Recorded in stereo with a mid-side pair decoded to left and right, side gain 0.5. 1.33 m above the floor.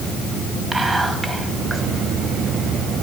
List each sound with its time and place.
0.7 s whispering: 20° right, 2 m